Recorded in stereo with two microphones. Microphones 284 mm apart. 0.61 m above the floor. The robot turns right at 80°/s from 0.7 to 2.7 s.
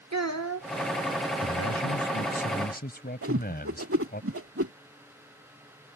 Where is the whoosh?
50° right (ahead or behind).